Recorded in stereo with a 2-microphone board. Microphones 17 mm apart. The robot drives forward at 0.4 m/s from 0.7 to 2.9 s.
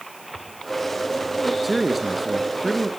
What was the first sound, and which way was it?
A man speaking, 5° right (ahead or behind).